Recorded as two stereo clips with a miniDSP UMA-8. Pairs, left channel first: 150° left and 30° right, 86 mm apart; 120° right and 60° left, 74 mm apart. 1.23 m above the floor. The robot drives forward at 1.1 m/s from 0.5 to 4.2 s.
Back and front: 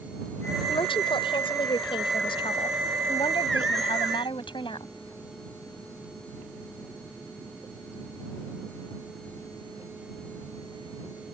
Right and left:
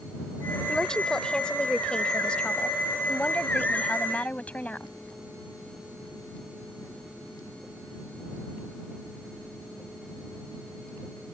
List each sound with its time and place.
0.7 s a woman speaking: 160° left; by 4.9 s 165° left